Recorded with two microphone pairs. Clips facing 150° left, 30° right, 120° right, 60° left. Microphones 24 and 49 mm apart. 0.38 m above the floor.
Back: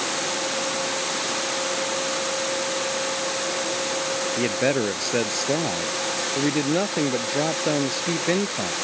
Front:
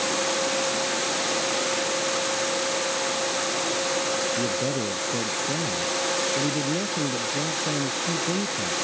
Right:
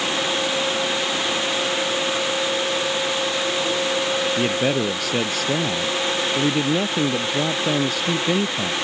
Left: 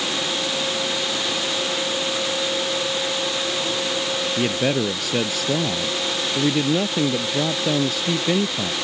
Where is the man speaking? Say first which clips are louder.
Back 4 dB, left 2 dB; 150° left.